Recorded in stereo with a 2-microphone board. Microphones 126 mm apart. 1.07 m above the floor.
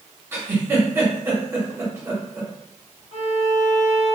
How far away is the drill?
I don't hear a drill.